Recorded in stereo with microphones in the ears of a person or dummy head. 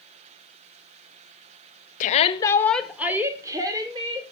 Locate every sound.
2.0 s a shout: 45° left (ahead or behind), 0.9 m; by 4.3 s 30° right (ahead or behind), 2 m